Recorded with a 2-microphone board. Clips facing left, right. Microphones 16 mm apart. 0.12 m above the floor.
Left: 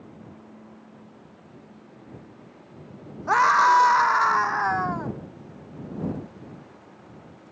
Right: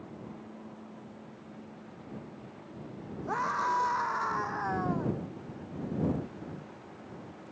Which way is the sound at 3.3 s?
50° left (ahead or behind).